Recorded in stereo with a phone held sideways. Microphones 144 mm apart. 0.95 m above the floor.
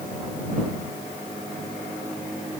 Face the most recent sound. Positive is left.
No sound to turn to.